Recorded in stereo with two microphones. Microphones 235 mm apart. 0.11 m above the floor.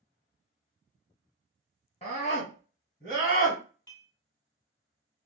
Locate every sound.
2.0 s a scream: 25° left (ahead or behind), 1.2 m; by 3.6 s 40° left (ahead or behind), 1.7 m
3.9 s dishes clattering: 15° left (ahead or behind), 1.7 m